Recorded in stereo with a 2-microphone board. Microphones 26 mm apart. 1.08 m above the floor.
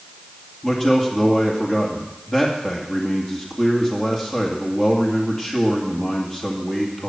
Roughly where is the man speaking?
Left.